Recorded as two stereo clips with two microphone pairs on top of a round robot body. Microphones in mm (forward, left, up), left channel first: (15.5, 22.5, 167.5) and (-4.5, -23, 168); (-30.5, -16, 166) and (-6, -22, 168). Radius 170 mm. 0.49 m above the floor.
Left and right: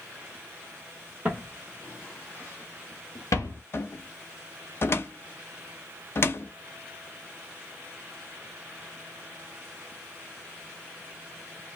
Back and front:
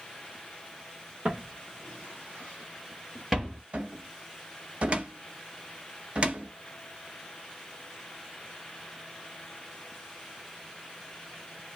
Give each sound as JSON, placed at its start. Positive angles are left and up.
{"t": 1.2, "sound": "footsteps", "azimuth_deg": -55, "distance_m": 1.0}
{"t": 3.7, "sound": "a cupboard door", "azimuth_deg": 25, "distance_m": 0.6}